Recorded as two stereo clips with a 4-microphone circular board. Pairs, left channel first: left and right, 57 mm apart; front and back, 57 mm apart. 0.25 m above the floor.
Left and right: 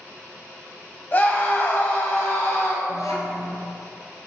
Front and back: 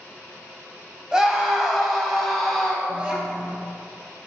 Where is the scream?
110° left, 1.7 m; by 2.8 s 75° left, 2 m.